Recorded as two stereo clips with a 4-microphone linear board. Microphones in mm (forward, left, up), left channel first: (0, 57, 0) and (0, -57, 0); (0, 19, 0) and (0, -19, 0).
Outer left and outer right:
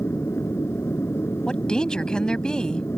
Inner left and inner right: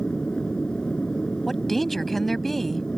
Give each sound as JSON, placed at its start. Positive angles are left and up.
{"t": 0.0, "sound": "an aircraft", "side_deg": 25}
{"t": 1.5, "sound": "a woman speaking", "side_deg": 5}